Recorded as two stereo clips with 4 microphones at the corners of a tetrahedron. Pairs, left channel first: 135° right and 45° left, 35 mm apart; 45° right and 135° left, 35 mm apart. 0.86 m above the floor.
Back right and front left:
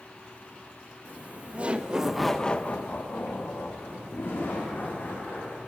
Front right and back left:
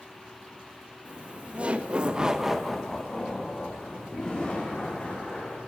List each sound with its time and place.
1.1 s laughter: 80° left, 1.3 m; by 5.6 s 110° right, 3 m